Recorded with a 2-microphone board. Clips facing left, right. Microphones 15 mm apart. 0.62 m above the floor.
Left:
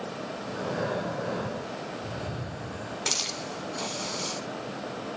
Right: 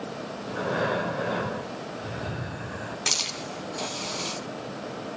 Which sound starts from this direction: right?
Breathing, at 0.5 s.